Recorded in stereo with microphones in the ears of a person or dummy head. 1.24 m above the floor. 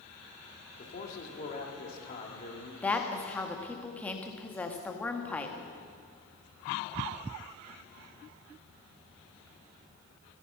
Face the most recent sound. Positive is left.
turn(degrees=5)  # may be behind; listen again after turning